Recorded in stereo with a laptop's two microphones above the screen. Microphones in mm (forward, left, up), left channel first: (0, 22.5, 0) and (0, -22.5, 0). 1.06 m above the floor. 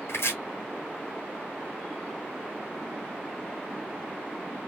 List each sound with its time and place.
0.1 s chopping: 65° left (ahead or behind), 1.6 m